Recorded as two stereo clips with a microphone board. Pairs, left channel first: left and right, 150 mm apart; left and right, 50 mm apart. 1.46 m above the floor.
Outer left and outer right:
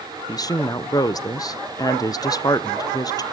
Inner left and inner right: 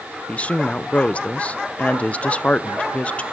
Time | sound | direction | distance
0.3 | a woman speaking | 25° left (ahead or behind) | 0.6 m